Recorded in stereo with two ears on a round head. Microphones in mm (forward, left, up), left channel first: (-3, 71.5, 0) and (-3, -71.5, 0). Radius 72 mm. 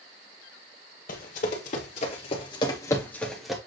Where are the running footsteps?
55° left (ahead or behind), 1.9 m; by 3.6 s 5° right (ahead or behind), 1.2 m.